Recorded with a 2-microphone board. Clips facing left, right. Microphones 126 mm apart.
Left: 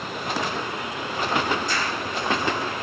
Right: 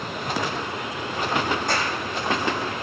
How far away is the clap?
About 6.5 m.